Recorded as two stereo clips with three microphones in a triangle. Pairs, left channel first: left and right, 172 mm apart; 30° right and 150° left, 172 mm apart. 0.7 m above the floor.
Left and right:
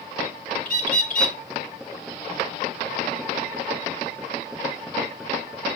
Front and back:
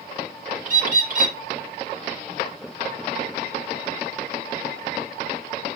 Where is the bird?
120° left, 0.8 m.